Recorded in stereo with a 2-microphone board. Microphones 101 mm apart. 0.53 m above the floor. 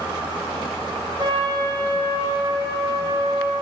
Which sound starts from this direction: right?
A trumpet, at 1.2 s.